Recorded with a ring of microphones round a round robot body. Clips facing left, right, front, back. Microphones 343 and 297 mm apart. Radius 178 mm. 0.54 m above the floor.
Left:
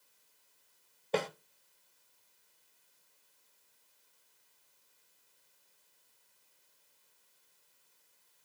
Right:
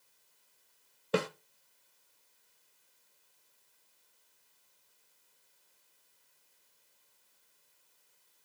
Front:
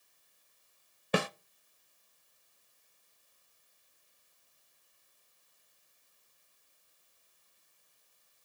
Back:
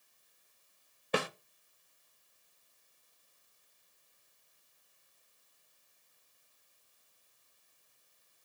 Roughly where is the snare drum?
Ahead.